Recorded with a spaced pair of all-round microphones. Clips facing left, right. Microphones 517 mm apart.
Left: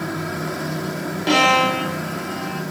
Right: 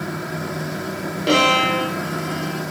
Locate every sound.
1.3 s a violin: 15° left (ahead or behind), 0.6 m